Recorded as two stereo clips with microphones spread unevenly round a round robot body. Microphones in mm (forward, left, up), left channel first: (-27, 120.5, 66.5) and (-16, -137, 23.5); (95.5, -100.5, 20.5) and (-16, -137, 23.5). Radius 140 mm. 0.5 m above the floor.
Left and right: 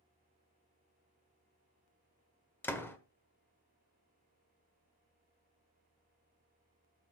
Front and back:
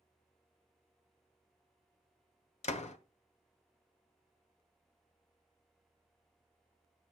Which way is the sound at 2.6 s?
5° left.